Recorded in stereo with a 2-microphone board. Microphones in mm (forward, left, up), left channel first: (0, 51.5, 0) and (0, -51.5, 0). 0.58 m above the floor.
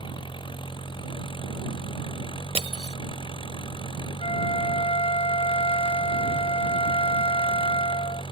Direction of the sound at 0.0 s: 55° left (ahead or behind).